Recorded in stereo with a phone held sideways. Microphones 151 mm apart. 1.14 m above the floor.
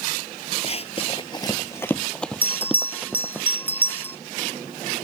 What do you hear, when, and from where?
0.6 s running footsteps: 45° left (ahead or behind); by 3.4 s 10° right (ahead or behind)
2.4 s a bell: 10° left (ahead or behind)